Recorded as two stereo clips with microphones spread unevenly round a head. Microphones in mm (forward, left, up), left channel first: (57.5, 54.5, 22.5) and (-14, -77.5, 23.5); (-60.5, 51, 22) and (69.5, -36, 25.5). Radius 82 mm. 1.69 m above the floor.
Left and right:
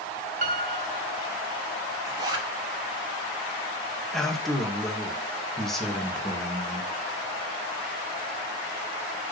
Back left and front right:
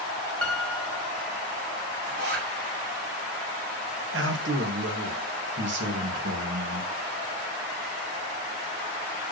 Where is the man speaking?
25° right, 2.5 m.